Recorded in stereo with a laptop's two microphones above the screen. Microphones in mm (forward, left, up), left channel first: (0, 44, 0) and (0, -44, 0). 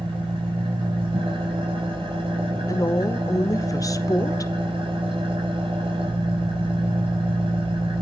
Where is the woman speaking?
40° left (ahead or behind), 0.9 m.